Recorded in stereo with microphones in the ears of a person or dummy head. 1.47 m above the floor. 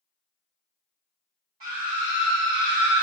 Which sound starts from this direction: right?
A scream, at 1.6 s.